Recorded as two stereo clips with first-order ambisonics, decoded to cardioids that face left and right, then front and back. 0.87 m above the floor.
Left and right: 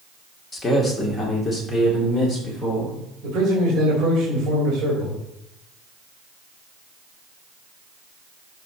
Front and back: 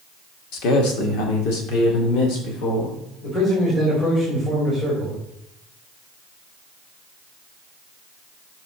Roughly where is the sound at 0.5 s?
Ahead.